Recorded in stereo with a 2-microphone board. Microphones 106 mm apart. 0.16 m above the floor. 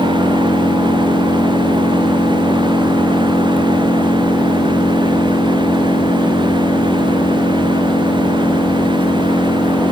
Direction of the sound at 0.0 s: 60° left (ahead or behind).